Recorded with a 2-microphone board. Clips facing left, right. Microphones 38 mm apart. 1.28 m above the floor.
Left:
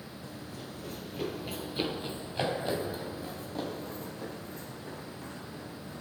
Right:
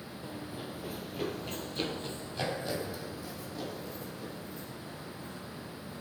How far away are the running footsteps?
About 1.4 m.